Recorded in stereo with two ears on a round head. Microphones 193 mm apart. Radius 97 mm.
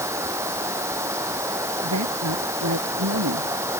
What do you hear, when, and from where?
0.0 s running water: 15° right (ahead or behind)
1.8 s a woman speaking: 80° right